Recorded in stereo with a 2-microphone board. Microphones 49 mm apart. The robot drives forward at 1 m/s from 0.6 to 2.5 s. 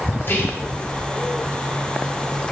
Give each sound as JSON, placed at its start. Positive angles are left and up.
{"t": 0.2, "sound": "whispering", "side_deg": 50, "distance_m": 1.7}